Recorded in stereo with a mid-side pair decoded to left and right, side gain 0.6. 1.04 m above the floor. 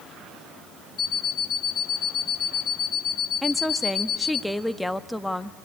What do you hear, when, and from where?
1.0 s an alarm clock: 40° left, 1.3 m
3.4 s a woman speaking: 5° left, 1.2 m